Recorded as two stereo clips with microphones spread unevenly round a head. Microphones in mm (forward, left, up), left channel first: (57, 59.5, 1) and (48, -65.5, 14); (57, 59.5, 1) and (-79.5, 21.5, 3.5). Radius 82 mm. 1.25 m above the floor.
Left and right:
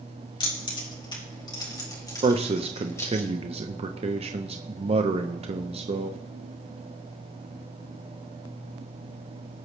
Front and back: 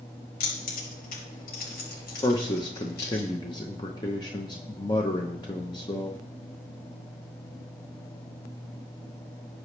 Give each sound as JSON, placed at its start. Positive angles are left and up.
{"t": 0.4, "sound": "keys jangling", "azimuth_deg": 35, "distance_m": 5.0}
{"t": 2.2, "sound": "a man speaking", "azimuth_deg": -50, "distance_m": 0.8}